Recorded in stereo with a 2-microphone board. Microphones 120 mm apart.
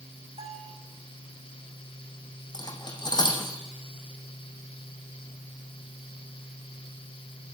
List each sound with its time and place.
0.4 s a bell: 60° right (ahead or behind), 7 m
2.5 s cutlery clinking: 35° left (ahead or behind), 4 m